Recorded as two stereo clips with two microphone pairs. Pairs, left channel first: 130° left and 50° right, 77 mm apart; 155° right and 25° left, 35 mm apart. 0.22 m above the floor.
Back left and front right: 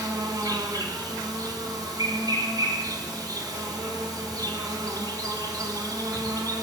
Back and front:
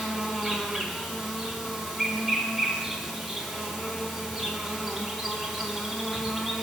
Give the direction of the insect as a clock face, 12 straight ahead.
2 o'clock.